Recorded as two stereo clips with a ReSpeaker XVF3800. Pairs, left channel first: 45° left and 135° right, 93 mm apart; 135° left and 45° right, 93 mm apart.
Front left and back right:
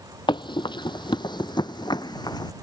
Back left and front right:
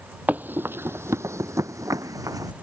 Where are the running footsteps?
25° left; by 2.5 s 5° left.